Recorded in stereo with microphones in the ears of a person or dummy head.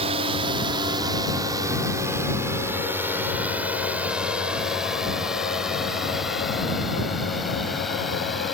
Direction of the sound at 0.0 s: 35° right (ahead or behind).